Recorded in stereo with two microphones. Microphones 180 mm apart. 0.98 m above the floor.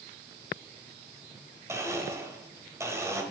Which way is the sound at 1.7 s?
15° right (ahead or behind).